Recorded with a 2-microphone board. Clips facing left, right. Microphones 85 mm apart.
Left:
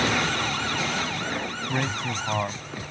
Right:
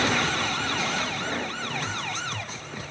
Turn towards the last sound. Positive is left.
turn(degrees=60)  # may be behind; listen again after turning